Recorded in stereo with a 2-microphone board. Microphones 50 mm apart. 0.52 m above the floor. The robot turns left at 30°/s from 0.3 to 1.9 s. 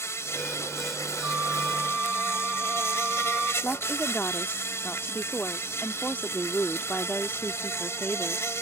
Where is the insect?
115° left; by 8.6 s 65° left.